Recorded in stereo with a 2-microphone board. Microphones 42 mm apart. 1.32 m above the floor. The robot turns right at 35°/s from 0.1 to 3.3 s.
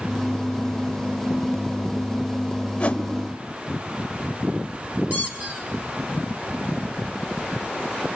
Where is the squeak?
40° right (ahead or behind), 5 m.